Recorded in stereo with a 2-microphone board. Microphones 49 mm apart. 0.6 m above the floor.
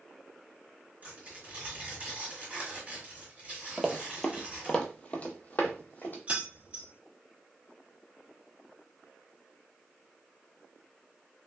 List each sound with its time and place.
1.0 s tearing paper: 30° right (ahead or behind), 1.5 m
3.8 s running footsteps: 10° right (ahead or behind), 0.7 m; by 6.2 s 35° left (ahead or behind), 1.1 m
6.3 s keys jangling: 30° right (ahead or behind), 0.6 m